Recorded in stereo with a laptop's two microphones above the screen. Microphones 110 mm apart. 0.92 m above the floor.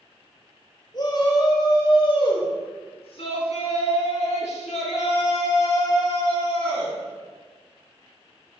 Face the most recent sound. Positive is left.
turn(degrees=45)  # may be behind; listen again after turning